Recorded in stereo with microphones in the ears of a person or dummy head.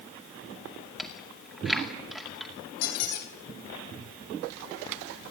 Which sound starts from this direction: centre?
Chewing, at 1.0 s.